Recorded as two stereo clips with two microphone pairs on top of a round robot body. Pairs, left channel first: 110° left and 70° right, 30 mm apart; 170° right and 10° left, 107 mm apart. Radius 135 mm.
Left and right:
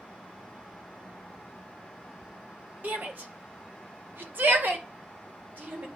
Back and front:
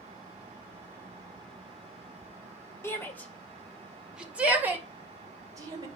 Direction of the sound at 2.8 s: 100° right.